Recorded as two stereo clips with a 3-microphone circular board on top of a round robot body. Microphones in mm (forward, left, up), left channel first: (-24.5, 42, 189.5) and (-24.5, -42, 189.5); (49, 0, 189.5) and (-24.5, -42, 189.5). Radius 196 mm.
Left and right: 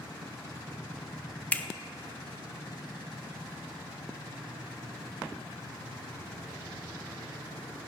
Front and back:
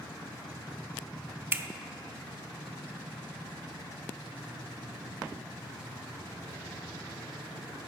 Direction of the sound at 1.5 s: 155° left.